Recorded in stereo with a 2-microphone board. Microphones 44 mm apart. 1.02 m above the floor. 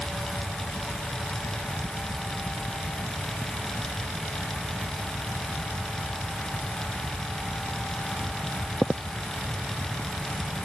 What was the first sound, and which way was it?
Only background noise.